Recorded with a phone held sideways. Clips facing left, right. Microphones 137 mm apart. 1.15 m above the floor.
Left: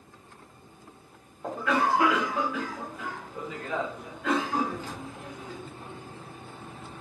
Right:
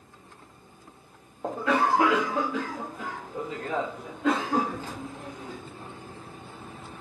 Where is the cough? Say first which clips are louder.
Right 2 dB; 30° right (ahead or behind), 0.7 m.